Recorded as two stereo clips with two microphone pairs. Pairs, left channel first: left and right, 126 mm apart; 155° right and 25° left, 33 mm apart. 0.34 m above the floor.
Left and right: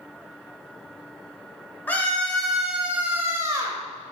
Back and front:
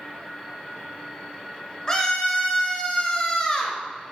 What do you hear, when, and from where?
1.9 s a scream: 155° left, 1.6 m; by 3.8 s 120° right, 1.6 m